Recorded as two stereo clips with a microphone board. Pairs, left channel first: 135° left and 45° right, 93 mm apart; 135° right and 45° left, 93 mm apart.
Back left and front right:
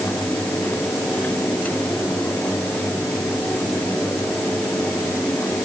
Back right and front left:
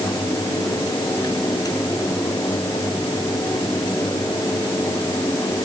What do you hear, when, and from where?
Only background noise.